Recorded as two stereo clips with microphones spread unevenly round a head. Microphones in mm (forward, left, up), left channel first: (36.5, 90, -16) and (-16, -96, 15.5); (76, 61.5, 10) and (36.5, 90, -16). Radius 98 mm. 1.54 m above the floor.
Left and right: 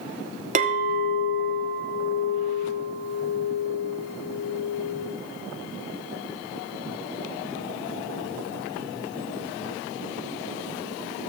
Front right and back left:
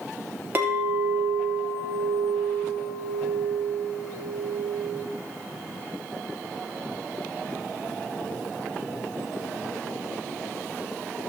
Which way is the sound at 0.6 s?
130° right.